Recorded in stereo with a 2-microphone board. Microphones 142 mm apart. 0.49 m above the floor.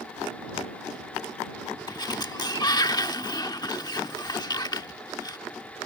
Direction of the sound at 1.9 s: 30° left (ahead or behind).